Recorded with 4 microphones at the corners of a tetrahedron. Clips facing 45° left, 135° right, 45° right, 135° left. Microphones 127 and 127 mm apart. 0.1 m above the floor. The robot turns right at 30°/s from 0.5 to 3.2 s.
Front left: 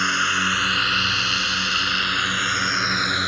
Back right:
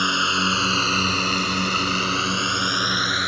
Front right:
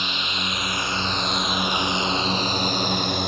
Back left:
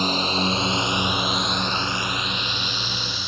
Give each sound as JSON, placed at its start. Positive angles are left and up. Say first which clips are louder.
{"t": 0.0, "sound": "a drone", "louder": "back right 1 dB, back left 7 dB", "azimuth_deg": 160}